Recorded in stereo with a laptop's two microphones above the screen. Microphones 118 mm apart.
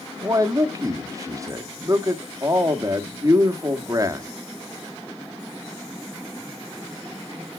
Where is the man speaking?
30° right (ahead or behind), 1.6 m.